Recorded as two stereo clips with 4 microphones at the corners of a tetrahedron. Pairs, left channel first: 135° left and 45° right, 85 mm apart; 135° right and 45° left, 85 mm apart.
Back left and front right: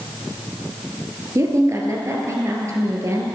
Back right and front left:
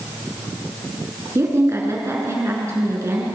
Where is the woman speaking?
5° right, 2.5 m.